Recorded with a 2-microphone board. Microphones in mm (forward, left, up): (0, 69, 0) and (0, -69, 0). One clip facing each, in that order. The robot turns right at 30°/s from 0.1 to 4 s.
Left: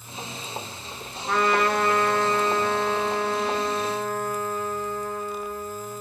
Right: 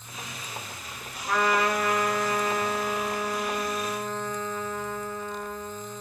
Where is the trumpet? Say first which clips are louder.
Left 2 dB; 45° left, 1.3 m; by 6.0 s 125° left, 1.3 m.